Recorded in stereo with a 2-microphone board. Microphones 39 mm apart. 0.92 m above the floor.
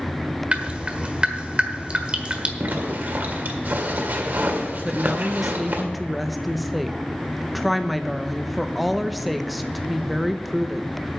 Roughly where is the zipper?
Right.